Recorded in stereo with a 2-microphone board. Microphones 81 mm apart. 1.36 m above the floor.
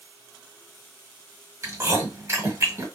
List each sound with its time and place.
1.6 s chewing: 35° right (ahead or behind), 1.2 m